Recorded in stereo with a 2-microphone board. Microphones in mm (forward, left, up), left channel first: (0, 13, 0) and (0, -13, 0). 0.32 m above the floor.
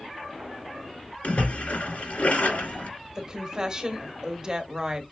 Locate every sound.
1.2 s a splash: 70° left (ahead or behind), 2 m
3.1 s a woman speaking: 30° right (ahead or behind), 1.0 m